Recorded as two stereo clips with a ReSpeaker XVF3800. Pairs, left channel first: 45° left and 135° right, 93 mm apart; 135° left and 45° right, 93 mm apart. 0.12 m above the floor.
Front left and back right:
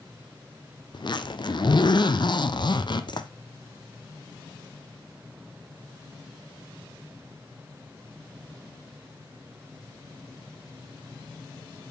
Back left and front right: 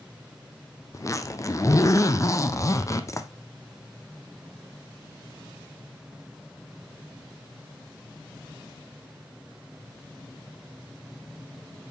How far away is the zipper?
About 0.7 m.